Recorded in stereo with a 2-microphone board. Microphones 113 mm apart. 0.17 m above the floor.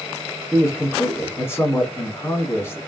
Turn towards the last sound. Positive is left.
turn(degrees=20)  # may be behind; listen again after turning